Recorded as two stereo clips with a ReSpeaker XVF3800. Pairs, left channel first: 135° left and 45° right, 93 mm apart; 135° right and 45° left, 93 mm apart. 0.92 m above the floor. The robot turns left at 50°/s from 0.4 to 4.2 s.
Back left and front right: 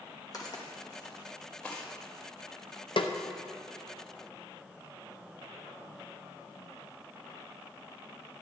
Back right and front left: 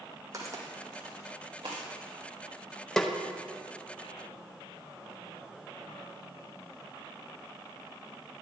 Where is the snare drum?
140° left, 0.6 m; by 3.1 s 135° left, 0.6 m.